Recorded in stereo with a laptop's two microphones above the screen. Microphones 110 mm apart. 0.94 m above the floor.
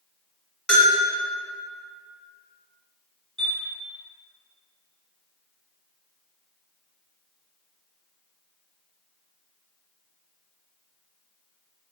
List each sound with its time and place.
0.7 s a bell: 5° left (ahead or behind), 1.8 m
3.4 s a chime: 50° right (ahead or behind), 0.7 m